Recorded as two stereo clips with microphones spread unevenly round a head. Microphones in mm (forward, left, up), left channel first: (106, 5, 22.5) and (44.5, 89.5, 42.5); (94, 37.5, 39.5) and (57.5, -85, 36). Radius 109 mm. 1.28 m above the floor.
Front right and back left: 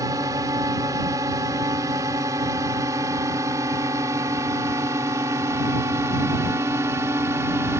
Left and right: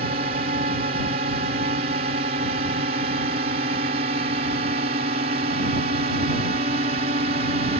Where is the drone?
160° right.